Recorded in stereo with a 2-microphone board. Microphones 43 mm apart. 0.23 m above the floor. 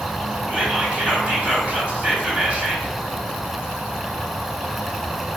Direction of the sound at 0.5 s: 30° right (ahead or behind).